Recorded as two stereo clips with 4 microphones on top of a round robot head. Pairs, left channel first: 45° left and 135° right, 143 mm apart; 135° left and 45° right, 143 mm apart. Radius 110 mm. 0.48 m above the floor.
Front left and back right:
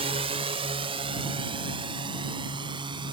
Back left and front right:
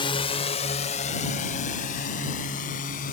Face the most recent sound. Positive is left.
turn(degrees=165)